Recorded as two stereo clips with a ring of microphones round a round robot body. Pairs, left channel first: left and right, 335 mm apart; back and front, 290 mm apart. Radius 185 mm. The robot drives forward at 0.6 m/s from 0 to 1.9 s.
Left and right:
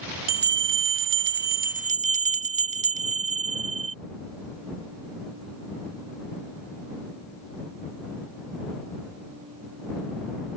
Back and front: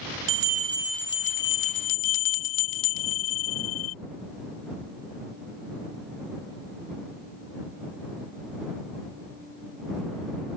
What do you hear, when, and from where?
0.3 s a bell: 35° right; by 4.0 s 155° right